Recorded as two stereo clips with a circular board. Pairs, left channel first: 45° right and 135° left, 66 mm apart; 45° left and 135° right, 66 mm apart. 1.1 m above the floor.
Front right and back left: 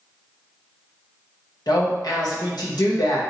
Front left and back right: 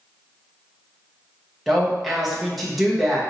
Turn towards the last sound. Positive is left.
turn(degrees=-45)